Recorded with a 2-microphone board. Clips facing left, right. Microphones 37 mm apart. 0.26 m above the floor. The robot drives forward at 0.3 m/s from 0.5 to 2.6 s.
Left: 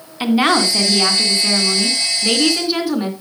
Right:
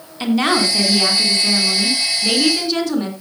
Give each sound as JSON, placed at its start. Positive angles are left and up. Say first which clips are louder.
{"t": 0.2, "sound": "a woman speaking", "louder": "left 2 dB", "side_deg": 15, "distance_m": 2.5}